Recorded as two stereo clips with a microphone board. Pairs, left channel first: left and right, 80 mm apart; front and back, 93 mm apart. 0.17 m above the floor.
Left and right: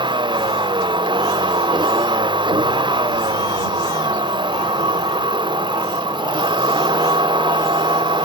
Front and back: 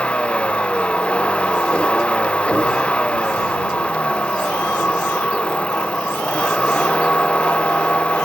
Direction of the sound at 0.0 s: 80° right.